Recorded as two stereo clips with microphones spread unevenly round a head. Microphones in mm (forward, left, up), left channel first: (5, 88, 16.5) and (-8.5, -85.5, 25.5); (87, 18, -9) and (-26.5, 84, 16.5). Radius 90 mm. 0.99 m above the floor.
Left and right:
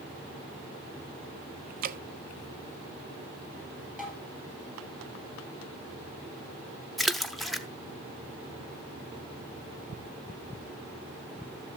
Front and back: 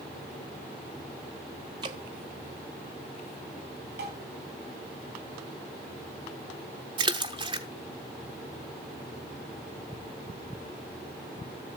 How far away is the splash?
About 0.7 m.